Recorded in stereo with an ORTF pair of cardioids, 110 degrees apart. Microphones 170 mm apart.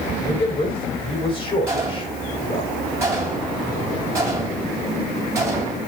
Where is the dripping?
I don't hear dripping.